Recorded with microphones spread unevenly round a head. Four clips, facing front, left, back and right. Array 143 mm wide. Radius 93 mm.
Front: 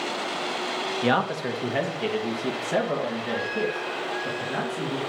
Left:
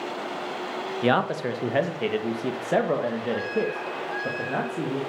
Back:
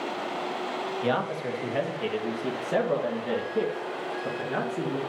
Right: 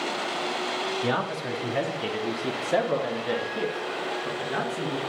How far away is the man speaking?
About 1.4 m.